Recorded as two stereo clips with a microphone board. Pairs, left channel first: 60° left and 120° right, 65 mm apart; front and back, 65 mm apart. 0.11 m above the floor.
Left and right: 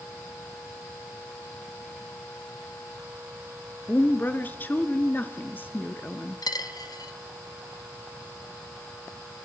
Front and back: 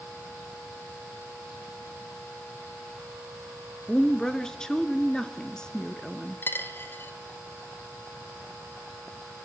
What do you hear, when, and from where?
3.9 s a woman speaking: 70° left, 1.4 m
6.4 s a dropped coin: 55° left, 1.0 m